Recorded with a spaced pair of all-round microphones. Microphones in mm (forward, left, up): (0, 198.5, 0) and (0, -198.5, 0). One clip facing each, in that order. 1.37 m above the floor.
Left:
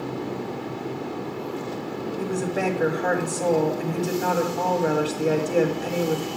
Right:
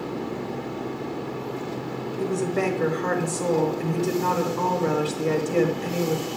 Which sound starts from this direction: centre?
A woman speaking, at 2.2 s.